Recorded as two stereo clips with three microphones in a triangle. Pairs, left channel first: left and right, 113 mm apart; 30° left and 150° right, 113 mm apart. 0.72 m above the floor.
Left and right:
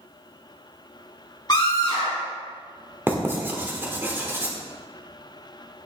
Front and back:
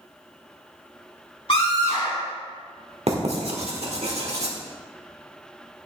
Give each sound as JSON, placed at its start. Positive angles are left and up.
{"t": 1.5, "sound": "a scream", "azimuth_deg": 45, "distance_m": 2.0}
{"t": 3.1, "sound": "writing", "azimuth_deg": -160, "distance_m": 1.4}